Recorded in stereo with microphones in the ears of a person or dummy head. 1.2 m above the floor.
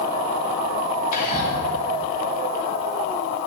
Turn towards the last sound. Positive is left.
turn(degrees=50)  # may be behind; listen again after turning